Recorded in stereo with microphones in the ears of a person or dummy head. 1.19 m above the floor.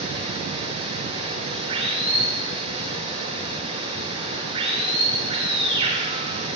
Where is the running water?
35° right (ahead or behind), 6.5 m.